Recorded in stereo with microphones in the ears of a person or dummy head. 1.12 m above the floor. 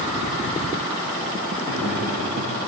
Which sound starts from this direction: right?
Laughter, at 1.6 s.